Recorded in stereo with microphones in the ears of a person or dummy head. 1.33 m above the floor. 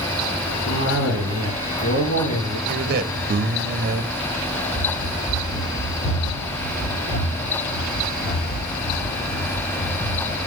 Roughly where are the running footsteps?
Left.